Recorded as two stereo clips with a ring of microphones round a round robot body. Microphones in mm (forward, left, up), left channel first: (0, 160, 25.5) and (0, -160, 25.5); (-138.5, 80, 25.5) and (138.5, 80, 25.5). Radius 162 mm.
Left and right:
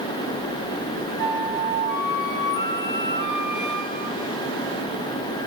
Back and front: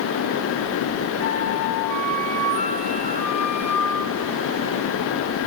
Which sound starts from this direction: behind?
A flute, at 1.2 s.